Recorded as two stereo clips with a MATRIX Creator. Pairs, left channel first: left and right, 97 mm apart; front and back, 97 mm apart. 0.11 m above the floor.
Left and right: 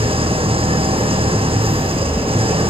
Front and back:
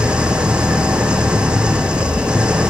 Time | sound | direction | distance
0.0 | an engine running | 100° right | 1.7 m